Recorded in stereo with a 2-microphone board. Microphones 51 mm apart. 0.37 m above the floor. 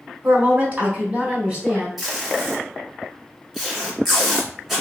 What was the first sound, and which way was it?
A woman speaking, 40° right (ahead or behind).